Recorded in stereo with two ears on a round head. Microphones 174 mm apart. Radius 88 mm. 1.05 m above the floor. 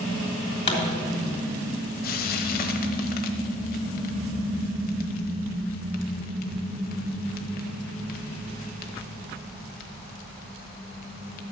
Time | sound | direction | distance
0.7 | a pop | 30° left (ahead or behind) | 3 m
2.0 | frying | 50° left (ahead or behind) | 1.2 m